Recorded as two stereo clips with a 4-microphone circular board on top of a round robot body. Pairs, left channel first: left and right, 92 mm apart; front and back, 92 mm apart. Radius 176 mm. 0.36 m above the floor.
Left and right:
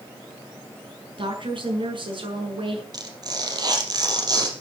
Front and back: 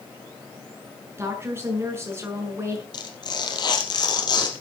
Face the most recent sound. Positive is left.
turn(degrees=-40)